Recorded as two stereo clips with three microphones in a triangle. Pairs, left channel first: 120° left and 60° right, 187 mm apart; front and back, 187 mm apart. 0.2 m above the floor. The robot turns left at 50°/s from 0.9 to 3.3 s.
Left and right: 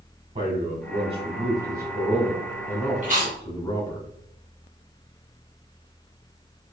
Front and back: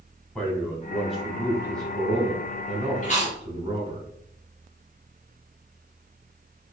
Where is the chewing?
30° right, 1.7 m; by 3.4 s 45° right, 1.7 m.